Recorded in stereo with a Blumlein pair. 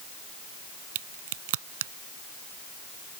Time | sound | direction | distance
0.9 | a crack | 50° right | ?